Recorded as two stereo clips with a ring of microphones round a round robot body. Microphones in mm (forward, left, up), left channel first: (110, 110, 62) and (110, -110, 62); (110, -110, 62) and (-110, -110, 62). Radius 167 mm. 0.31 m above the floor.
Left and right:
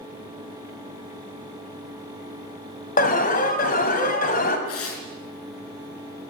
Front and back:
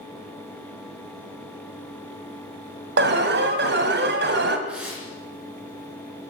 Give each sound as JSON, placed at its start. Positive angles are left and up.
{"t": 3.0, "sound": "an alarm", "azimuth_deg": 140, "distance_m": 2.5}
{"t": 4.7, "sound": "tearing paper", "azimuth_deg": 95, "distance_m": 4.5}